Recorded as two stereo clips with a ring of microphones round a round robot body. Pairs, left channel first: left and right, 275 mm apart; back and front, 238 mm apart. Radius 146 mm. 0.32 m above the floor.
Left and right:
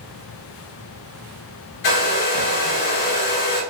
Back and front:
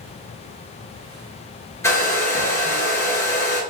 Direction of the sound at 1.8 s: 100° left.